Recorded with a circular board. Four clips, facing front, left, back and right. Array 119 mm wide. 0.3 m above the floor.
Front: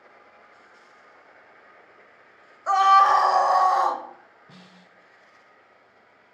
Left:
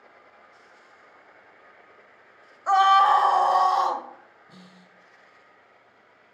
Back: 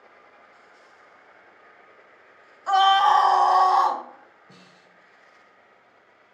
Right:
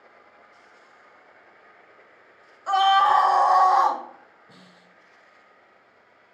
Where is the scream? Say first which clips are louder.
Left 1 dB, front 1 dB; 35° left, 1.7 m; by 4.0 s 60° right, 1.9 m.